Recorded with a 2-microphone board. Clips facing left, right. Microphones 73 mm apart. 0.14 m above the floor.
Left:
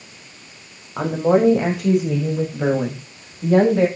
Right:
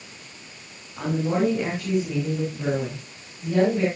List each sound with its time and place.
1.0 s a woman speaking: 80° left, 8.5 m